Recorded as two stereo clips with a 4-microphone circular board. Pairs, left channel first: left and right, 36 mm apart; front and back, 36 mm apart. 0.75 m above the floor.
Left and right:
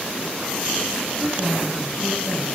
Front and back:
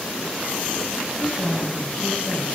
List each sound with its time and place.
1.2 s a woman speaking: 90° left, 6 m